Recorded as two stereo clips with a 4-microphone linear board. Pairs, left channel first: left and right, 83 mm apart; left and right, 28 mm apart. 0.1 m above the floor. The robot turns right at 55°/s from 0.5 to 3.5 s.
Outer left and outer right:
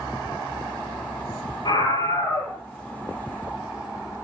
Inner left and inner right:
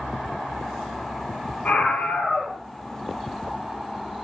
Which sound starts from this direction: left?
A scream, at 1.6 s.